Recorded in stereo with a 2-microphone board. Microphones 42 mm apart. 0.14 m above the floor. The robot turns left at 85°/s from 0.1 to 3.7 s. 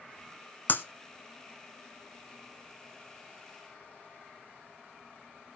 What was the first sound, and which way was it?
Breaking glass, 45° left (ahead or behind).